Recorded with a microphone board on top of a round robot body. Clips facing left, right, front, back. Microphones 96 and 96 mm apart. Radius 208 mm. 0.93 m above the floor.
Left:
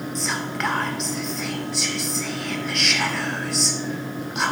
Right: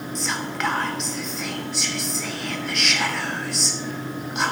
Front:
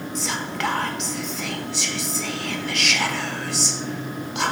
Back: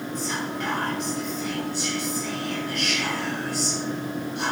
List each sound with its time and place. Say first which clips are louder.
0.1 s whispering: right 1 dB, front 3 dB; straight ahead, 0.6 m